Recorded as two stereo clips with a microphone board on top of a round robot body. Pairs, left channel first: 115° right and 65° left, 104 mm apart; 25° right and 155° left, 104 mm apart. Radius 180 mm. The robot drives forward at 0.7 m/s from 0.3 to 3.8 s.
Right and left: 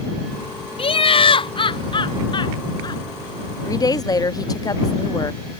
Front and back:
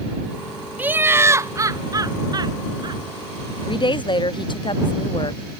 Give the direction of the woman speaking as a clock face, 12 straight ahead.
2 o'clock.